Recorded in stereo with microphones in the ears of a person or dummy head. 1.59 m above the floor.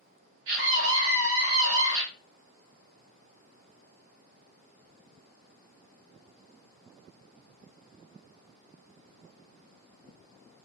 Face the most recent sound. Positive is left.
turn(degrees=-70)  # may be behind; listen again after turning